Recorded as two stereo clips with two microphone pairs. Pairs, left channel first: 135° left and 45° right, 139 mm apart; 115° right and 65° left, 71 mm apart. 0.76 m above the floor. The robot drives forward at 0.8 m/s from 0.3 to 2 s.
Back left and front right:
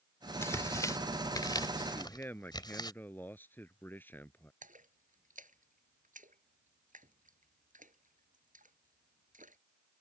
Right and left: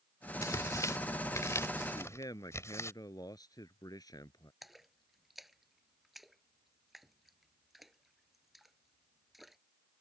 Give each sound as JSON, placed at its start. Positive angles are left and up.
{"t": 0.4, "sound": "tearing paper", "azimuth_deg": -150}
{"t": 1.9, "sound": "a man speaking", "azimuth_deg": -145}
{"t": 4.6, "sound": "a splash", "azimuth_deg": -20}